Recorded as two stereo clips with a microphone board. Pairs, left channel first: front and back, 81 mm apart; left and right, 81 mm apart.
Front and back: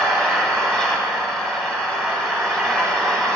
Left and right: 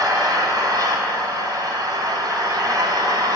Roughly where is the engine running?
Right.